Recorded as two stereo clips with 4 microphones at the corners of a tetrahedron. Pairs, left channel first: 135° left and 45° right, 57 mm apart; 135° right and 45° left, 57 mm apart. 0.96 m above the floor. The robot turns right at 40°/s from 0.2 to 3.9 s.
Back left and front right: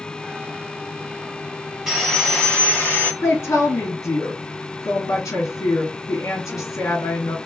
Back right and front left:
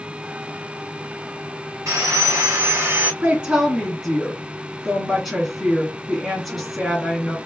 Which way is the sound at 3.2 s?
100° left.